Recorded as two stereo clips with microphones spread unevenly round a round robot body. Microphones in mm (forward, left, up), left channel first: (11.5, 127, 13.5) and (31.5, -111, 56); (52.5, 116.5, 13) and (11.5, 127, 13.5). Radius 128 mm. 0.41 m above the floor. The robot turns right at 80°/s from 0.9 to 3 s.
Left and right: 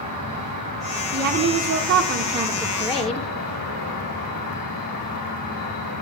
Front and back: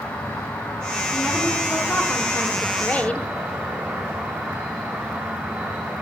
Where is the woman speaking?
125° right, 0.9 m; by 3.3 s 25° left, 0.9 m.